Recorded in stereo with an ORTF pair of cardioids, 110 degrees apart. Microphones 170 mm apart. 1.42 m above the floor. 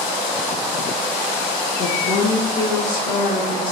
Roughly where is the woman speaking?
Ahead left.